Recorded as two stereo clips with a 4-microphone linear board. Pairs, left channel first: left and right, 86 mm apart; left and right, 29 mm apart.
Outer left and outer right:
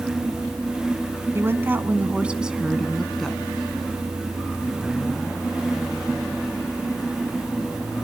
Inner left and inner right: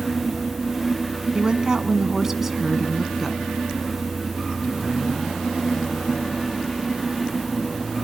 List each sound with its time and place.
1.4 s a woman speaking: 30° right (ahead or behind), 1.5 m; by 3.4 s 5° left (ahead or behind), 1.6 m